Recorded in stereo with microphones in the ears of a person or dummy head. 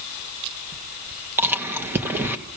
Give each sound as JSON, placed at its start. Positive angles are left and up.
{"t": 1.4, "sound": "chewing", "side_deg": -15, "distance_m": 1.5}